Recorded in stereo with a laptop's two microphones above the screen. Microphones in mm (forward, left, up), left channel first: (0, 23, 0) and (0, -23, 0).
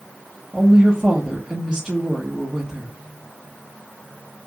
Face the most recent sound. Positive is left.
turn(degrees=-20)  # may be behind; listen again after turning